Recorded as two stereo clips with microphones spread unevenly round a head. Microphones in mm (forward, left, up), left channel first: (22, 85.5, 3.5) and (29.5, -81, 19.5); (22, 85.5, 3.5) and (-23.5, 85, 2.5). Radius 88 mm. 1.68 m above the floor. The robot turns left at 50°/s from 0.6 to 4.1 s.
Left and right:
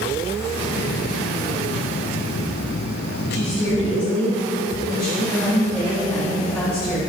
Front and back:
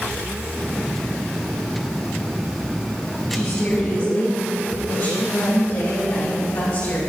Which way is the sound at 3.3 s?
70° left.